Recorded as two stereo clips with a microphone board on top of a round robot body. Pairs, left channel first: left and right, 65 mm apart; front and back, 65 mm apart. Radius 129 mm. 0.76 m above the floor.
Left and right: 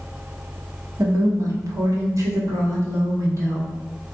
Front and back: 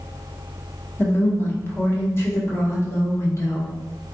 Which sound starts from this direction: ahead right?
A woman speaking, at 1.0 s.